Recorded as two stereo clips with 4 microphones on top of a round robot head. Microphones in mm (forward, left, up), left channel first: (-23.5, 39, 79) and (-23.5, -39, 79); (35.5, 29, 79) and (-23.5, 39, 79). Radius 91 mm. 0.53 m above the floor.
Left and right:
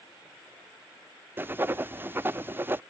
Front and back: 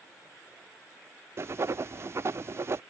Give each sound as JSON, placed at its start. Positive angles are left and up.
{"t": 1.4, "sound": "writing", "azimuth_deg": -150}